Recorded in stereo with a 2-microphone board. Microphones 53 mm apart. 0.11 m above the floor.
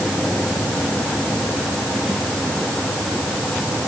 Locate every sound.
Only background noise.